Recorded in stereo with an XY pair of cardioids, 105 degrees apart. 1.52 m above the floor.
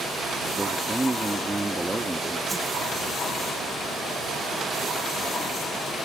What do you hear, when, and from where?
0.6 s a man speaking: 10° right
2.5 s a whoosh: 10° right